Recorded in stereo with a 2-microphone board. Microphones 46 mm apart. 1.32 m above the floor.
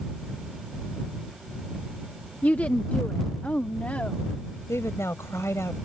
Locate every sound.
2.4 s a woman speaking: 40° left (ahead or behind); by 4.6 s 35° left (ahead or behind)
4.7 s a woman speaking: 90° left